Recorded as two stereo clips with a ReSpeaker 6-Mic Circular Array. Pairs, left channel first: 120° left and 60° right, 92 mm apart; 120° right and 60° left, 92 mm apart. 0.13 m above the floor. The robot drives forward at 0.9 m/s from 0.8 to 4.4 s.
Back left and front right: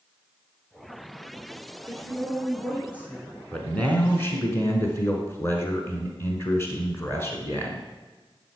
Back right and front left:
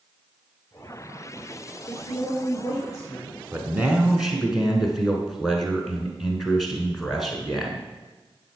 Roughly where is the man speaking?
Ahead left.